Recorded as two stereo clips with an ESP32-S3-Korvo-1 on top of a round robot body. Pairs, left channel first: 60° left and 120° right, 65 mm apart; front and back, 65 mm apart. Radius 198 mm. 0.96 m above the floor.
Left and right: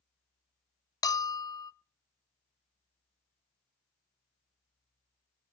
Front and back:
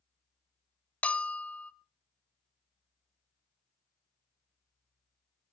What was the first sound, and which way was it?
A bell, 65° left.